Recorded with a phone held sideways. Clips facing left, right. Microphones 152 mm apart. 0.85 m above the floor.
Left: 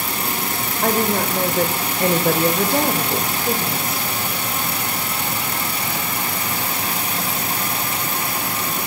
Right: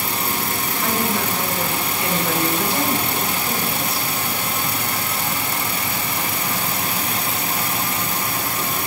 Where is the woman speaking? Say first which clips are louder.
Left 4 dB; 45° left (ahead or behind), 3 m.